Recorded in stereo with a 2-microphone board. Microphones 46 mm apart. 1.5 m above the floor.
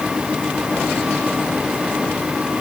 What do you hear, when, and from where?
Only background noise.